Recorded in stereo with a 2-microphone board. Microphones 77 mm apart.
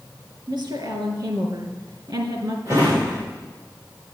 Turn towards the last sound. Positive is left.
turn(degrees=-40)  # may be behind; listen again after turning